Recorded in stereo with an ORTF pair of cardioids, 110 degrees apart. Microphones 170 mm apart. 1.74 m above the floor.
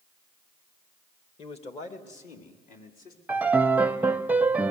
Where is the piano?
10° right, 0.6 m.